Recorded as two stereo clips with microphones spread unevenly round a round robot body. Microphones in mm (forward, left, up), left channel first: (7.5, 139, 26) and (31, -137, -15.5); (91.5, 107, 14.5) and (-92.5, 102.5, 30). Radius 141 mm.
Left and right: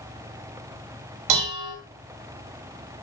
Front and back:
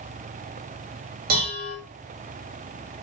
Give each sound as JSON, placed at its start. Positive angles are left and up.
{"t": 1.3, "sound": "dishes clattering", "azimuth_deg": -115, "distance_m": 2.5}